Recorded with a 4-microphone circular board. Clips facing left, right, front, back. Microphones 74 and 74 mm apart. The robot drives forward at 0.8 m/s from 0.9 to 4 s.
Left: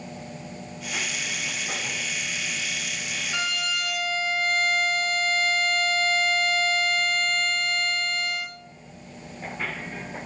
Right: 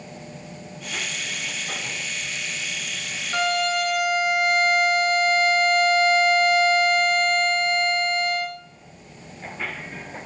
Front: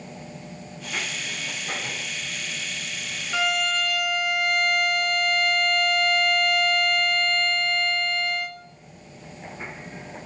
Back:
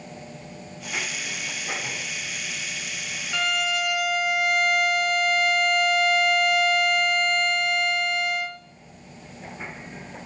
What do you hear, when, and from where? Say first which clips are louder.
3.3 s a violin: right 8 dB, front 1 dB; 80° right, 1.0 m; by 8.6 s 115° right, 1.1 m